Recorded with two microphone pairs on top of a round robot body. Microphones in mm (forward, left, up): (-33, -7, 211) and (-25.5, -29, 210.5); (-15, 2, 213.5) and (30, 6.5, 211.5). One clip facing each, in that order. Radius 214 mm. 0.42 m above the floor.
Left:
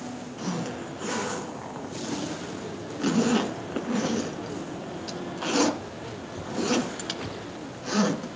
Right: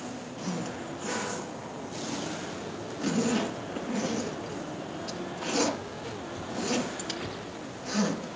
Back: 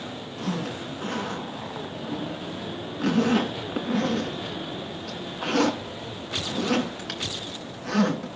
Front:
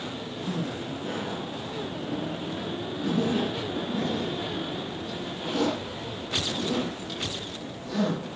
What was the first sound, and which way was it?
A zipper, straight behind.